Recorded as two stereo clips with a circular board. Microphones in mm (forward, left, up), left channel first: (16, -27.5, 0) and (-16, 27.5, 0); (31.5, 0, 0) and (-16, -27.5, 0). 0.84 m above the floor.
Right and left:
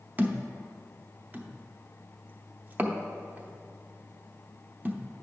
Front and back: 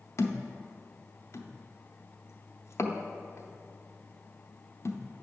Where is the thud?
60° left, 0.7 m.